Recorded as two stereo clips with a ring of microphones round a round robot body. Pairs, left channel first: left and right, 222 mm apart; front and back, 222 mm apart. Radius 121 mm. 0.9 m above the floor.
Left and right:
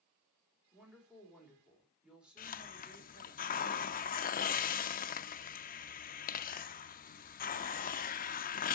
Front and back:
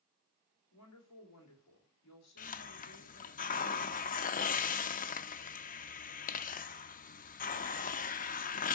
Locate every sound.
0.7 s a woman speaking: 5° right, 3.5 m
2.4 s a hiss: 45° left, 0.6 m